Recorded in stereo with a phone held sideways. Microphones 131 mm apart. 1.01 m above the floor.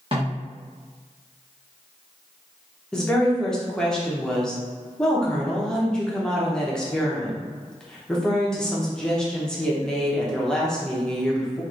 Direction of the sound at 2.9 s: 5° left (ahead or behind).